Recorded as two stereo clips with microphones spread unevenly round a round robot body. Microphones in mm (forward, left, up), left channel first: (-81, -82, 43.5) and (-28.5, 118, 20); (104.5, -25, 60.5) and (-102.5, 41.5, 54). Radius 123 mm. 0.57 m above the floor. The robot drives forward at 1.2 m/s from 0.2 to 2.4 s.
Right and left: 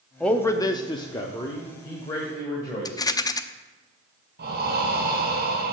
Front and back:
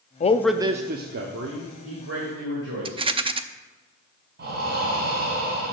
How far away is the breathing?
About 2.0 m.